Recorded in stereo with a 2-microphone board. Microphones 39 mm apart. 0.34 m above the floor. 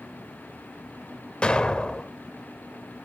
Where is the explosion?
25° left (ahead or behind), 0.5 m.